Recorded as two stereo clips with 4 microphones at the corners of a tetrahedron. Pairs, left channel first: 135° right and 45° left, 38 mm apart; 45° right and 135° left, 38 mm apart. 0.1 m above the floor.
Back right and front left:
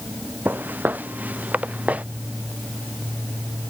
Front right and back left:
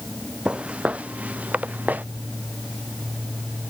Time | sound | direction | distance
0.5 | footsteps | 75° left | ?